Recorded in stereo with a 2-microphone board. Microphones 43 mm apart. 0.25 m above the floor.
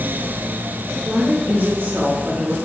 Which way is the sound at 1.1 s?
55° right (ahead or behind).